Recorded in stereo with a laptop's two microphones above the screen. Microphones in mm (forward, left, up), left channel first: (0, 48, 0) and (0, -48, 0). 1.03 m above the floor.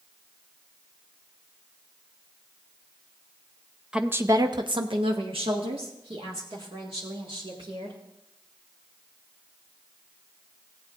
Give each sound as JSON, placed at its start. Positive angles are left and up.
{"t": 3.9, "sound": "a woman speaking", "side_deg": -10, "distance_m": 0.6}